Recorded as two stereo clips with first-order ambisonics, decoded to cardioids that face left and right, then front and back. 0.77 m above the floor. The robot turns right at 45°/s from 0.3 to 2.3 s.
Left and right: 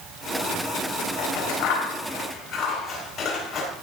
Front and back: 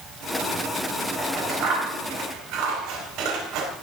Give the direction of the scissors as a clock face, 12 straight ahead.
9 o'clock.